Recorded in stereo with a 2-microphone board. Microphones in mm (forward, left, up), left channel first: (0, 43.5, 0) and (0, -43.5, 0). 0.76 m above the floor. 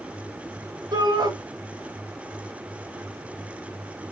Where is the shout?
55° right (ahead or behind), 2.5 m.